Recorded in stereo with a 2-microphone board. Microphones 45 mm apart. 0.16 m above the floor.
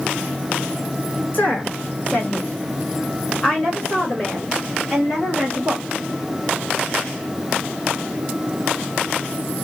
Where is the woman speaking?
45° left (ahead or behind), 1.6 m; by 5.8 s centre (ahead or behind), 2.5 m.